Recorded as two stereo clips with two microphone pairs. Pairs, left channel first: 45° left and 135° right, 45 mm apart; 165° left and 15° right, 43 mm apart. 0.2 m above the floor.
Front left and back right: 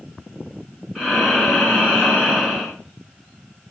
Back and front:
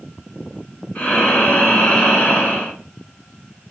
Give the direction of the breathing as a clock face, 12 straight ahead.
7 o'clock.